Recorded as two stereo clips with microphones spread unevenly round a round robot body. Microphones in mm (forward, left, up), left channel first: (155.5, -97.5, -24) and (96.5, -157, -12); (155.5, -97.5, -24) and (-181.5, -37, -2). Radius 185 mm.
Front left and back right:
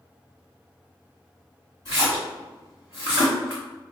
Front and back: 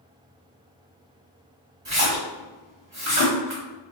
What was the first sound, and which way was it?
A splash, 110° left.